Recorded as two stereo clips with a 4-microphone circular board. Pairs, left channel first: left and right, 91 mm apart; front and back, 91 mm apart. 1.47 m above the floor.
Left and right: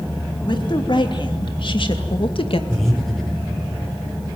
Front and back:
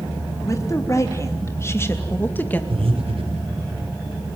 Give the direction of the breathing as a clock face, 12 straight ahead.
6 o'clock.